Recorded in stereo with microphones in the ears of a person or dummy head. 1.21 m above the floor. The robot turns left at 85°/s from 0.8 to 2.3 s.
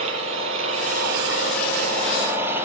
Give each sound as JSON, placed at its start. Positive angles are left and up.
{"t": 0.0, "sound": "an engine running", "azimuth_deg": -35, "distance_m": 7.0}